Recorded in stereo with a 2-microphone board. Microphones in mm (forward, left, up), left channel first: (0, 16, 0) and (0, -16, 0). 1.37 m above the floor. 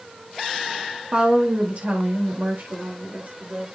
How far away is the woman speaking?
About 2.5 m.